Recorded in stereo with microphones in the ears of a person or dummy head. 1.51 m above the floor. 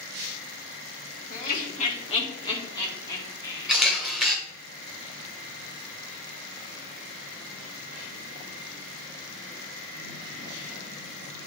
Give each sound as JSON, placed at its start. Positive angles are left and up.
{"t": 1.3, "sound": "laughter", "side_deg": 50, "distance_m": 1.2}
{"t": 3.7, "sound": "a camera shutter", "side_deg": 0, "distance_m": 1.5}